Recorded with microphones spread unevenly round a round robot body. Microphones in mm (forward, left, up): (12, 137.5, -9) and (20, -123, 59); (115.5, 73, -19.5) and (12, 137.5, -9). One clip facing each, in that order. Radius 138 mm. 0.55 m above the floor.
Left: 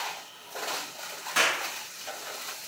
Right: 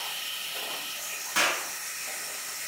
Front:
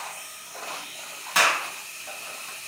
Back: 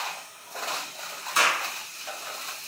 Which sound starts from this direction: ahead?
A clap, at 1.4 s.